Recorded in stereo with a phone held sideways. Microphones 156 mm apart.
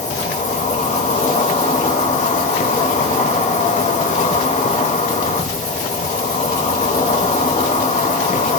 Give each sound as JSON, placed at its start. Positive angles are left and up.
{"t": 0.0, "sound": "an insect", "side_deg": 50, "distance_m": 0.8}